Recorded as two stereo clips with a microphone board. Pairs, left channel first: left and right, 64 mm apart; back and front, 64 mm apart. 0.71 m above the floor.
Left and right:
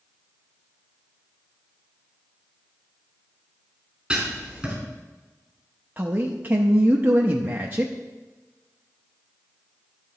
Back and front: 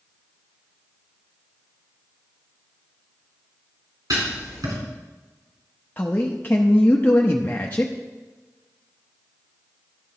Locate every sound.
4.1 s writing: 15° right, 3.5 m
6.0 s a man speaking: 130° right, 0.6 m